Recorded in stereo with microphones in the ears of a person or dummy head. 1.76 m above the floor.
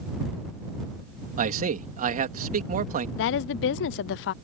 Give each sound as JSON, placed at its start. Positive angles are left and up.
{"t": 1.4, "sound": "a man speaking", "side_deg": -40}
{"t": 3.2, "sound": "a woman speaking", "side_deg": 65}